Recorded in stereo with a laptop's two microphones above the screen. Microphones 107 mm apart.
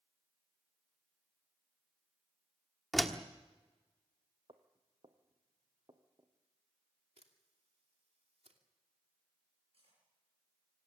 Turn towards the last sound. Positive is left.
turn(degrees=-65)  # may be behind; listen again after turning